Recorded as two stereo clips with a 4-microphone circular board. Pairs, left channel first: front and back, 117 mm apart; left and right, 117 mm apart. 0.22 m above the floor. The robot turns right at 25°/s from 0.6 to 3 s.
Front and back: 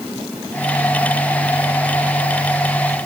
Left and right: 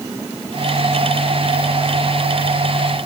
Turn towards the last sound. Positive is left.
No sound to turn to.